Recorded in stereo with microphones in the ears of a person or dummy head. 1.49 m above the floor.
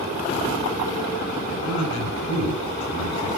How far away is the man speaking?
About 9 m.